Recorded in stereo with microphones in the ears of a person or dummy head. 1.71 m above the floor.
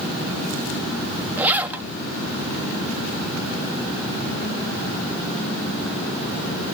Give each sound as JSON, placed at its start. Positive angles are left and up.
{"t": 1.4, "sound": "a zipper", "side_deg": -10, "distance_m": 1.3}